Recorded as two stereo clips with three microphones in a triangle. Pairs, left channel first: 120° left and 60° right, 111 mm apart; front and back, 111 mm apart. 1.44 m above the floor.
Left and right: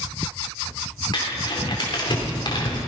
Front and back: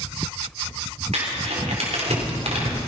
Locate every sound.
1.1 s crumpling: 165° left, 3.5 m